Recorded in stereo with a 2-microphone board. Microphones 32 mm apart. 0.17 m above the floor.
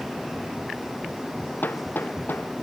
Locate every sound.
1.6 s hammering: 75° left (ahead or behind)